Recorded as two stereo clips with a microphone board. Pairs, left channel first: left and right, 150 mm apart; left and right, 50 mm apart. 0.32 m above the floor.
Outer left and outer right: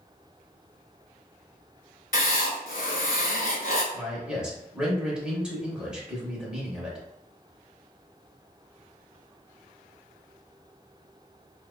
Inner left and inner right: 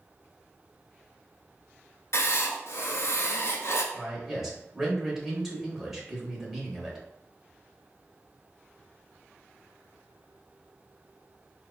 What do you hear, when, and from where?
2.1 s writing: 70° left (ahead or behind), 0.7 m
3.9 s a man speaking: 5° right (ahead or behind), 1.0 m